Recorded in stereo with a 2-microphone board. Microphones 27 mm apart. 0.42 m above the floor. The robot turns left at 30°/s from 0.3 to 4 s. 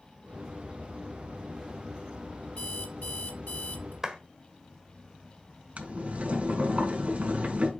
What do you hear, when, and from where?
2.6 s an alarm clock: 130° left, 3 m; by 3.9 s 85° left, 3 m
4.0 s a clap: 20° right (ahead or behind), 1.3 m
5.8 s boiling: 55° right (ahead or behind), 2.5 m